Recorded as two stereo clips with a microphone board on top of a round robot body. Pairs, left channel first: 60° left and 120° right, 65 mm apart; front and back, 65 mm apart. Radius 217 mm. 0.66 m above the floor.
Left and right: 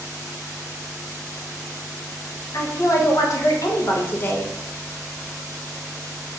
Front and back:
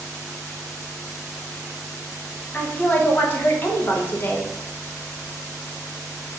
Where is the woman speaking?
65° left, 1.7 m; by 4.5 s 15° left, 1.1 m.